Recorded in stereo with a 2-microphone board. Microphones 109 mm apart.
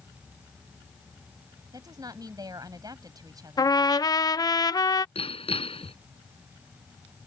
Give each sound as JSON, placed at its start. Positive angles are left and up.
{"t": 1.7, "sound": "a woman speaking", "side_deg": -35}
{"t": 3.6, "sound": "a trumpet", "side_deg": 35}
{"t": 5.2, "sound": "hammering", "side_deg": 60}